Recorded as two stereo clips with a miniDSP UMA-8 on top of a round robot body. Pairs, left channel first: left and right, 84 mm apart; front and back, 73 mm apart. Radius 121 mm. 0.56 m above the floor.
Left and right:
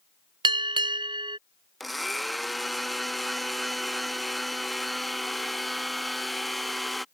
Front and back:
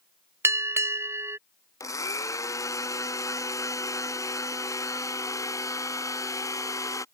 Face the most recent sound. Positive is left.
turn(degrees=0)